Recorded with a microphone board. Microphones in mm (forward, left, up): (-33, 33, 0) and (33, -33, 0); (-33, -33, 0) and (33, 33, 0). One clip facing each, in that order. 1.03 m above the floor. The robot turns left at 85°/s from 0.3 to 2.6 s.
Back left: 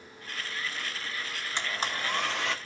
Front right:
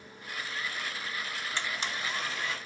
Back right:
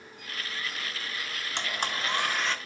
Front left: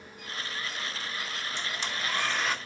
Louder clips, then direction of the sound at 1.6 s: Back left 4 dB, back right 5 dB; 155° right.